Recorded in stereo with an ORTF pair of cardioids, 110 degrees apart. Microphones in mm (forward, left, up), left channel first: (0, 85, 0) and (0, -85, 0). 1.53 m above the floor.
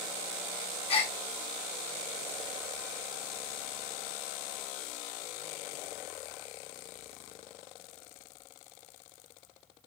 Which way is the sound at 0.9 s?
35° left.